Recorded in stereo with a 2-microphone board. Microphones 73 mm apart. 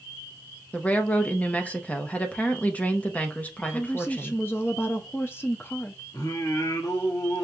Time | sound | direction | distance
0.7 | a woman speaking | 20° left (ahead or behind) | 0.8 m
3.6 | a woman speaking | 30° left (ahead or behind) | 0.6 m
6.1 | singing | 55° left (ahead or behind) | 1.5 m